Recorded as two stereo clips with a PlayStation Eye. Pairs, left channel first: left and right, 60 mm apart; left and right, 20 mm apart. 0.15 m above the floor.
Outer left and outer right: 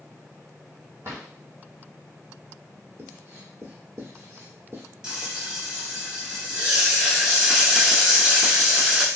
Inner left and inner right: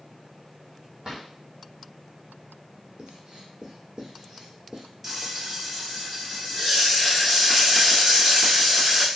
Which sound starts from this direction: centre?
Frying, at 5.0 s.